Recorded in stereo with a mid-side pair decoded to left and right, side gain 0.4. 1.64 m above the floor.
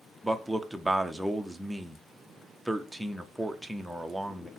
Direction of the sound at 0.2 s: 5° right.